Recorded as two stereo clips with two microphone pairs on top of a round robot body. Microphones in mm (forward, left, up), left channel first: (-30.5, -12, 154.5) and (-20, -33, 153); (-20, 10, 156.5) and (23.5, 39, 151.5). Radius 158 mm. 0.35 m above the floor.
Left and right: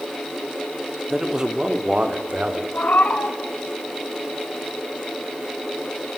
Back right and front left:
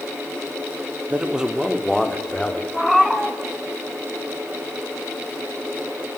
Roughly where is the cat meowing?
Behind left.